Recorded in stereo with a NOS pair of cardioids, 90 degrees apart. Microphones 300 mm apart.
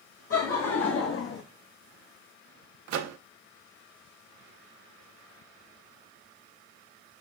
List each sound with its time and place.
0.3 s laughter: 50° left, 1.4 m; by 1.4 s 45° left, 0.8 m
2.9 s a microwave: 65° right, 0.7 m